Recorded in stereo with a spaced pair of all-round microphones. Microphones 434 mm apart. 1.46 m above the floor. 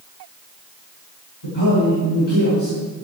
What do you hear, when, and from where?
1.4 s a man speaking: 85° left, 7 m